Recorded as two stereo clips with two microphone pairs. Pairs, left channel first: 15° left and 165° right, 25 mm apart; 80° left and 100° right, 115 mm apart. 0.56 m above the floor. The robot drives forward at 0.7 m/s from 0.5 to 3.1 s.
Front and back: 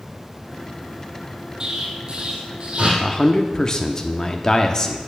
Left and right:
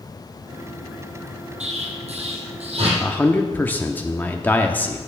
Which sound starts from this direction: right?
An explosion, at 1.6 s.